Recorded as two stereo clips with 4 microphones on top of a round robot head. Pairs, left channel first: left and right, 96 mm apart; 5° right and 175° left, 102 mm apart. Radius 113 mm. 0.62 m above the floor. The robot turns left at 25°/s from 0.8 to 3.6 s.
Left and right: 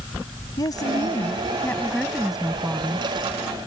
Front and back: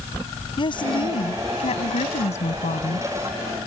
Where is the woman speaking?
35° left; by 3.1 s 25° right.